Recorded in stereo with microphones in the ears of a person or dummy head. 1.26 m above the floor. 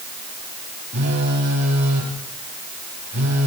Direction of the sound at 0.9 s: 65° right (ahead or behind).